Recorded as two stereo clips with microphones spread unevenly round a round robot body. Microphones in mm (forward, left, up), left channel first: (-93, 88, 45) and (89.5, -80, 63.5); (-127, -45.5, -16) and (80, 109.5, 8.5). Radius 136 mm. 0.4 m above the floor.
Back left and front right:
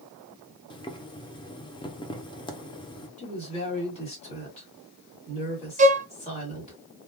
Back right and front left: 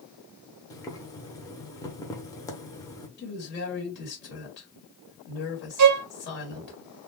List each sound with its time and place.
0.7 s boiling: 170° left, 0.8 m
3.2 s a woman speaking: 170° right, 1.8 m
5.8 s a violin: 20° left, 0.5 m